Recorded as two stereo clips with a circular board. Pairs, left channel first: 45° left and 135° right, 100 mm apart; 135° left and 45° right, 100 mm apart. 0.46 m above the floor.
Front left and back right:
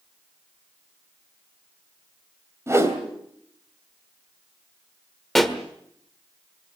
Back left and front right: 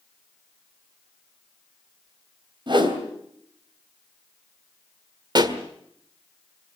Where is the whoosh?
75° right, 2.5 m.